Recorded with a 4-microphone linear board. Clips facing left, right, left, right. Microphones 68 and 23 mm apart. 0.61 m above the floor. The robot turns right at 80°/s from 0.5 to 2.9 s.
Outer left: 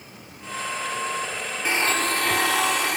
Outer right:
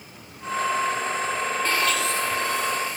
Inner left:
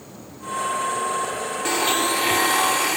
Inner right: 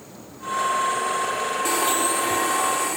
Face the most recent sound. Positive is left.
turn(degrees=115)